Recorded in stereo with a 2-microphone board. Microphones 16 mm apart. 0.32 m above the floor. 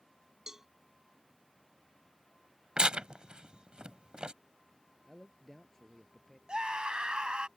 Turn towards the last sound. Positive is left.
turn(degrees=-60)  # may be behind; listen again after turning